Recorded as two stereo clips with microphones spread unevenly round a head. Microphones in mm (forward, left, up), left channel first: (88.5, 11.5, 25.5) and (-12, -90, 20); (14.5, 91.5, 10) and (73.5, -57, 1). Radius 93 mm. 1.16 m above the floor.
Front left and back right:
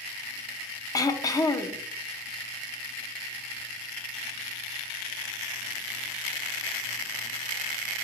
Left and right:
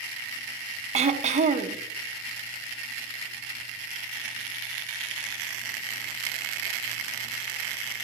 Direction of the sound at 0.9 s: 20° right.